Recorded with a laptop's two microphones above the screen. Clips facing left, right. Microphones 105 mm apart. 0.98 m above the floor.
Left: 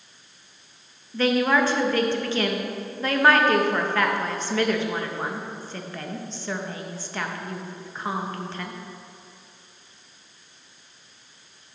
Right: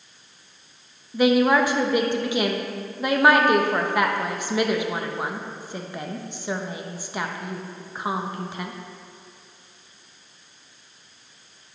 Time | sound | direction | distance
1.1 | a woman speaking | 15° right (ahead or behind) | 0.8 m